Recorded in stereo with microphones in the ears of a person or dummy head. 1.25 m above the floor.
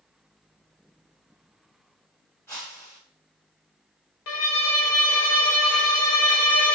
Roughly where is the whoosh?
Centre.